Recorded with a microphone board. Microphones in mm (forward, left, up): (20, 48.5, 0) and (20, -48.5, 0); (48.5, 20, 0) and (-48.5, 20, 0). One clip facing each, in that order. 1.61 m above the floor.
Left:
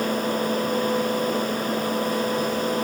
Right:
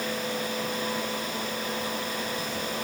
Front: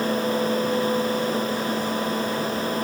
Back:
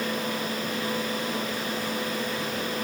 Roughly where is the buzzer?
I don't hear a buzzer.